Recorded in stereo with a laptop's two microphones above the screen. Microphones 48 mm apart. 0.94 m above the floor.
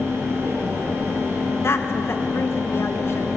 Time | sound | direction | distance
0.0 | a fan | 65° right (ahead or behind) | 4 m
1.6 | a woman speaking | 55° left (ahead or behind) | 0.9 m